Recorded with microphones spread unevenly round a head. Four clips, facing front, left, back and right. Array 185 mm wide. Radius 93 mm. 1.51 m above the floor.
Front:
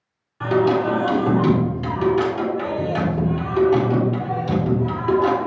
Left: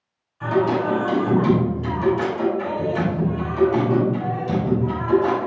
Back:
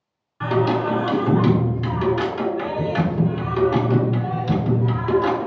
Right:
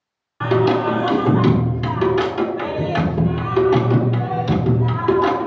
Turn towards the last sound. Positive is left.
turn(degrees=-90)